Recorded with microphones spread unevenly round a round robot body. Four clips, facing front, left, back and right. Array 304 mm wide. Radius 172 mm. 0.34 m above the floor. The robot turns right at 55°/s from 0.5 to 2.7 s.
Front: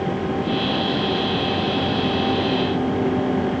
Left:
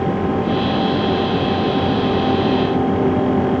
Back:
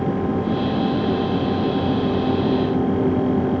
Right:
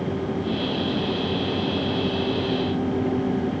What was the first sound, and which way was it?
Only background noise.